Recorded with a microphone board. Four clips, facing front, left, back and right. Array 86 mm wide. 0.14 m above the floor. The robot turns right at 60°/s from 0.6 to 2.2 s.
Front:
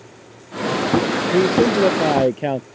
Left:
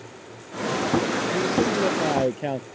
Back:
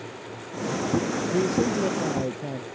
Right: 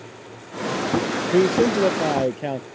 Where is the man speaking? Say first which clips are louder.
Right 8 dB, front 9 dB; 55° right; by 2.6 s straight ahead.